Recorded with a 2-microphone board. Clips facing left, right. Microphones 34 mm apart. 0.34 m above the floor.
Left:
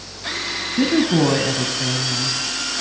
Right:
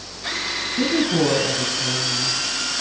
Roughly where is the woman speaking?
Centre.